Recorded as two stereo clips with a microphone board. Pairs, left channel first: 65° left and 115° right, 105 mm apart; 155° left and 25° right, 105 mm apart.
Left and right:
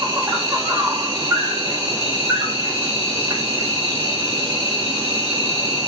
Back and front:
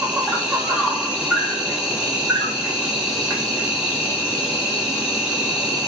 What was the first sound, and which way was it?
An insect, 95° right.